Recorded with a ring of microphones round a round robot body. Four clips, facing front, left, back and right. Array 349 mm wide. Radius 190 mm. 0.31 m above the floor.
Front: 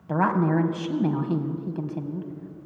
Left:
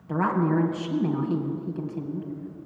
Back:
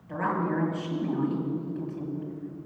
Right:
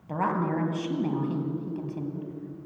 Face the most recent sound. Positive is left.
turn(degrees=-5)